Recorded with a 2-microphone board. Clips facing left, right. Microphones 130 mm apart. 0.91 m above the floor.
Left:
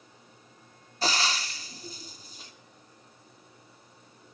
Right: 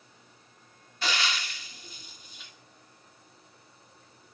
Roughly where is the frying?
Left.